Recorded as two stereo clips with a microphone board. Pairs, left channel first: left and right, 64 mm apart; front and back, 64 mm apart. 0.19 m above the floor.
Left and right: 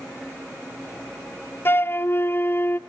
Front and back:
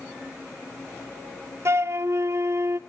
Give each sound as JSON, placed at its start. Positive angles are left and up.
{"t": 1.6, "sound": "a flute", "azimuth_deg": 140, "distance_m": 0.6}